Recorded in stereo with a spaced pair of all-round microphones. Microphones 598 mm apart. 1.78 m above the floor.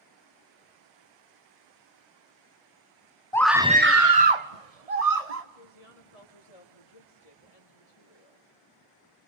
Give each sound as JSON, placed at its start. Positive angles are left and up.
{"t": 3.3, "sound": "a scream", "side_deg": 5, "distance_m": 1.0}
{"t": 5.5, "sound": "a woman speaking", "side_deg": 75, "distance_m": 3.0}